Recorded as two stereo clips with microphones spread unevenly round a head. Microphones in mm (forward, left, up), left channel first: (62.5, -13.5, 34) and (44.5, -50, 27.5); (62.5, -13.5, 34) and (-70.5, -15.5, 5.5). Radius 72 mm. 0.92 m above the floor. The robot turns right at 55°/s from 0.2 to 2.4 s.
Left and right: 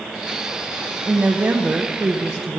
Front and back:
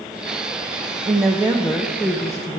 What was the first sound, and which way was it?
A woman speaking, 135° right.